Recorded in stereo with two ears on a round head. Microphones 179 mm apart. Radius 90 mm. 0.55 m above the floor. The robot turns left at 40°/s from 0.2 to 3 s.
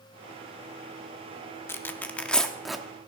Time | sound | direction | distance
1.7 | tearing paper | 10° left (ahead or behind) | 0.7 m